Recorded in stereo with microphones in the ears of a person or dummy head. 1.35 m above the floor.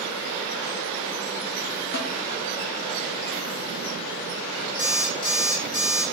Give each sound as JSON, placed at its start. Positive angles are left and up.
{"t": 1.9, "sound": "a snare drum", "side_deg": 60, "distance_m": 0.6}
{"t": 4.8, "sound": "an alarm clock", "side_deg": 65, "distance_m": 1.6}